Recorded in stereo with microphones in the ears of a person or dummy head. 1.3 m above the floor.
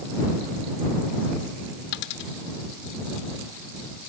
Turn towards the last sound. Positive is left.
turn(degrees=65)  # may be behind; listen again after turning